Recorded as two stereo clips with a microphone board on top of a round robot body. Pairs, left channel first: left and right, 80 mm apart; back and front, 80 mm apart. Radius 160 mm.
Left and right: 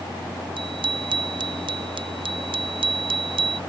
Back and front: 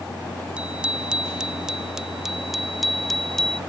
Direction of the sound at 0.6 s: 75° right.